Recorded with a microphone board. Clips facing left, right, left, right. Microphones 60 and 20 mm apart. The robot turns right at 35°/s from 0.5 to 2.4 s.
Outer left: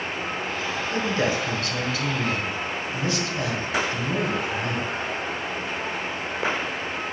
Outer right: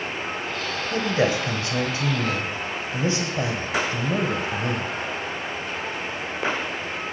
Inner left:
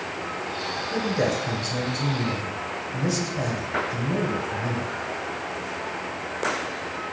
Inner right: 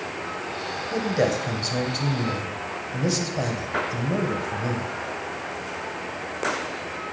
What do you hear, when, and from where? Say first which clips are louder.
0.9 s a man speaking: outer right 3 dB, inner right 2 dB; 20° right (ahead or behind), 1.6 m; by 4.9 s 30° right (ahead or behind), 1.6 m